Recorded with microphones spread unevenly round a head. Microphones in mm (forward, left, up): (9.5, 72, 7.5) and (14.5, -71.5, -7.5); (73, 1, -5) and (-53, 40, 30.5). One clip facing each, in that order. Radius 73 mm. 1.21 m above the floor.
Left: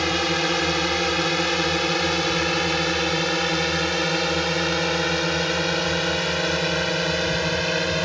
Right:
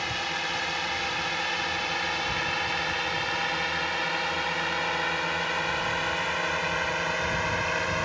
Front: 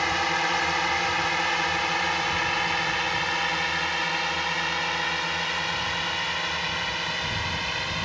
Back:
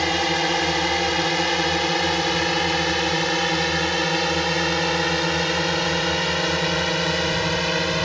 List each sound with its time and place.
0.0 s a drone: 115° left; by 8.1 s 140° left